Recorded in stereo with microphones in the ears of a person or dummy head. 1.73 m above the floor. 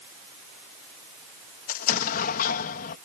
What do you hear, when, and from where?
1.7 s an explosion: 50° left (ahead or behind)